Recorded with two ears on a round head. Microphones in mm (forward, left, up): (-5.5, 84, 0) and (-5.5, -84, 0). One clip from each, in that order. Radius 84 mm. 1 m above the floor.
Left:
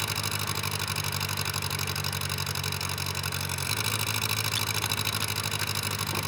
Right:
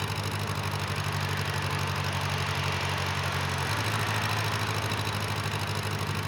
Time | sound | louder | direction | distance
0.0 | an engine running | left 2 dB | 55° left (ahead or behind) | ?